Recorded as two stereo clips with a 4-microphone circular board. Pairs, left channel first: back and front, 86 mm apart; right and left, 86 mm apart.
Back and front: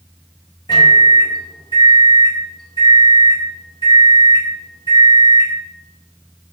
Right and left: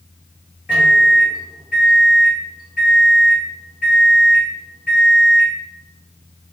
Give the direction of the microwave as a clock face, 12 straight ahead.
6 o'clock.